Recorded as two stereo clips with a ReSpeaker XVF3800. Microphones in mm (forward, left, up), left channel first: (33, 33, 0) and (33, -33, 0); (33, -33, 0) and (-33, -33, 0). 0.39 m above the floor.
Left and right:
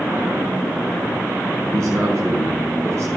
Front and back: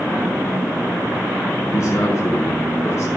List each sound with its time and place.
1.7 s a man speaking: 45° right, 4 m